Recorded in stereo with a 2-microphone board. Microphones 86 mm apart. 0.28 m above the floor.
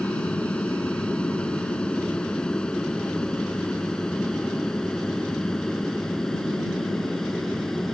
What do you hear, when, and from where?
0.0 s an aircraft: 15° left (ahead or behind); by 8.0 s 5° left (ahead or behind)